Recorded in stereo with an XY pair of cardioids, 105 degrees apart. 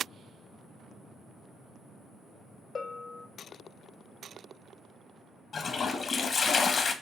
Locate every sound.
2.8 s a bell: 40° left, 0.6 m
5.5 s a toilet flushing: 45° left, 0.7 m